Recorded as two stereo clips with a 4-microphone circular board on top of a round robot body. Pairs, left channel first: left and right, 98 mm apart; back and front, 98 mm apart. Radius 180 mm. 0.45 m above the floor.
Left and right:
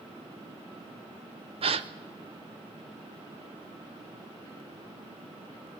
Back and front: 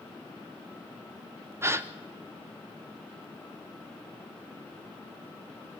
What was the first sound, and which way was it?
A gasp, 65° right.